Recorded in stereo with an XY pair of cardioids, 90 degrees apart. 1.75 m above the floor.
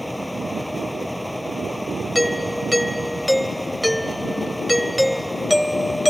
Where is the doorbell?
Straight ahead.